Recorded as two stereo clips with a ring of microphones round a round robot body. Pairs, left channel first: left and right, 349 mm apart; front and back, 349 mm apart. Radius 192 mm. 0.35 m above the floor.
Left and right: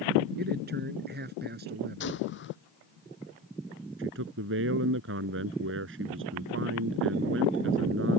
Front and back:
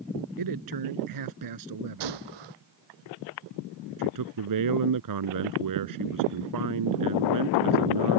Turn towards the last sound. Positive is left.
turn(degrees=-150)